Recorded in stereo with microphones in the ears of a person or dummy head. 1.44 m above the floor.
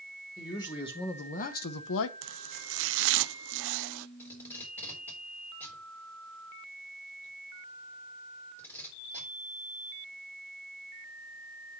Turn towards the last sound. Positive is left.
turn(degrees=10)  # may be behind; listen again after turning